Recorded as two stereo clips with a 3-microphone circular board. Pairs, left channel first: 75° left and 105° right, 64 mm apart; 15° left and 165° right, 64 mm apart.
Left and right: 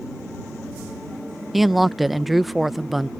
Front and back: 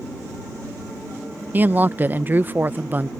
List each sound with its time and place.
1.5 s a woman speaking: 170° left